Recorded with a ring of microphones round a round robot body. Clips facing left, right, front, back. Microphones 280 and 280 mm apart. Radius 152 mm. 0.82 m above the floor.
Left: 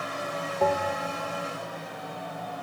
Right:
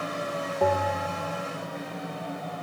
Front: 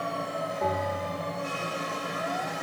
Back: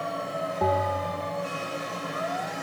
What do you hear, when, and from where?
0.6 s a bell: 175° right, 2.5 m